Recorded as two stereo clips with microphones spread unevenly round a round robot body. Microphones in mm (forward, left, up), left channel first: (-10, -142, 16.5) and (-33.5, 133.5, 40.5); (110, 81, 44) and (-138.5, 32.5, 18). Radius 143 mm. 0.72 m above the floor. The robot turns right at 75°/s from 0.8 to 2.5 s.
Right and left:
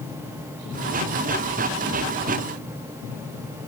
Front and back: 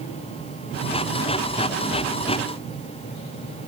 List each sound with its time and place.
Only background noise.